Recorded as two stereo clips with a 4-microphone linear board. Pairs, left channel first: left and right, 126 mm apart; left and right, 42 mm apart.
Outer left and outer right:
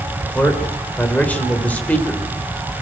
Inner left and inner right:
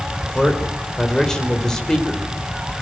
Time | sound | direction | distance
0.2 | a man speaking | 10° left (ahead or behind) | 3.5 m